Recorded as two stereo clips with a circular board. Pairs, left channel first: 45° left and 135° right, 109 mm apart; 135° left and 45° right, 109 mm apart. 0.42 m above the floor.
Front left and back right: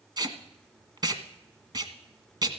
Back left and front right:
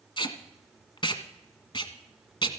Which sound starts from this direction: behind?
Tape being pulled, at 0.2 s.